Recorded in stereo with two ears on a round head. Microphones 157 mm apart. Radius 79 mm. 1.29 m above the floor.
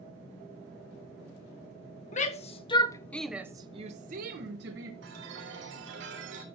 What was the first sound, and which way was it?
A shout, 45° left (ahead or behind).